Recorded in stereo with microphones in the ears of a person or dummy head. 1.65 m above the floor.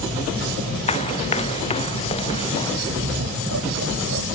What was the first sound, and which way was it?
Running footsteps, 35° left (ahead or behind).